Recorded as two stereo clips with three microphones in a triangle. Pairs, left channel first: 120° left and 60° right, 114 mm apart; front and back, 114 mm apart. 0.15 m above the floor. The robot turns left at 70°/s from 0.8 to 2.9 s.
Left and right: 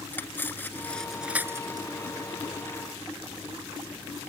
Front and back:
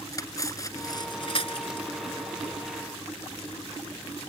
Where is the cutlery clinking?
50° left; by 1.9 s 20° right.